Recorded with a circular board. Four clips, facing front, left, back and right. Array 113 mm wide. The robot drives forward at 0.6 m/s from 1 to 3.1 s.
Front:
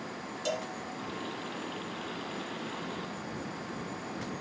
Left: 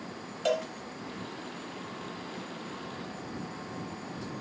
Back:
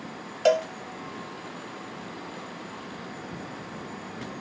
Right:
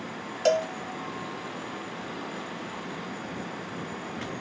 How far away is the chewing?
No chewing in this recording.